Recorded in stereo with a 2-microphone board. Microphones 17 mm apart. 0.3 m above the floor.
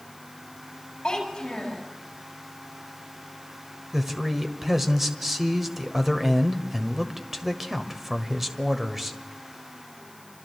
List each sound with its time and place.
1.0 s a child speaking: 45° left (ahead or behind), 7.5 m
3.9 s a man speaking: 10° right (ahead or behind), 1.4 m